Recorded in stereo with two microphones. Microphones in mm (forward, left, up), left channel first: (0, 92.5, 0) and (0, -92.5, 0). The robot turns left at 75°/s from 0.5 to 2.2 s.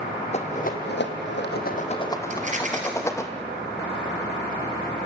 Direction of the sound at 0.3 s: 35° left (ahead or behind).